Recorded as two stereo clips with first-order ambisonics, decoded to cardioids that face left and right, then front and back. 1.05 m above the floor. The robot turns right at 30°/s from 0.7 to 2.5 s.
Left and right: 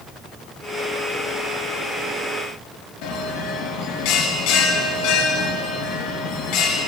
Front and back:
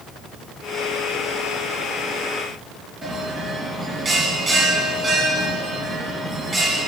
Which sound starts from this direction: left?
A bell, at 3.0 s.